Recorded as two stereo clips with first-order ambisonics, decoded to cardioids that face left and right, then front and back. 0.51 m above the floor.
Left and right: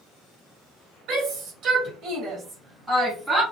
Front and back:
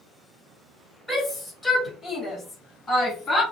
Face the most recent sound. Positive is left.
turn(degrees=-5)